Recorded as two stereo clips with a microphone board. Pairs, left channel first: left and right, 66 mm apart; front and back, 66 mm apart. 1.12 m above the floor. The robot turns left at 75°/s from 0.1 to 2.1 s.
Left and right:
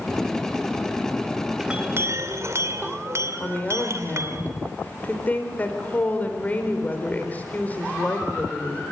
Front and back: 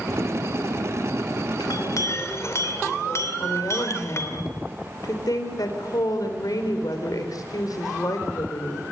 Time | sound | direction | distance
1.6 | a clink | 10° right | 2.5 m
3.4 | a woman speaking | 25° left | 4 m